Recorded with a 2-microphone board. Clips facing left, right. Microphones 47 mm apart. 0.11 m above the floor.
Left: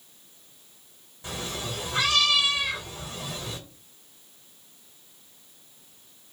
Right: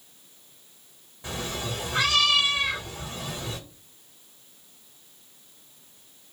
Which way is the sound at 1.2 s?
30° right (ahead or behind).